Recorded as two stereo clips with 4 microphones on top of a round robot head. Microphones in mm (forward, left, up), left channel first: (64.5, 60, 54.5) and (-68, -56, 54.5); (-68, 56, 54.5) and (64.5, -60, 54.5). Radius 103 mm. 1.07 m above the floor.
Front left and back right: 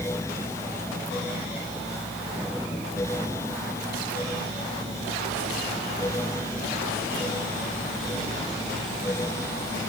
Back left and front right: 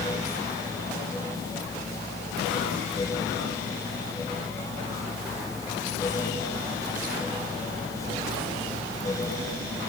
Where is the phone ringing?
I don't hear a phone ringing.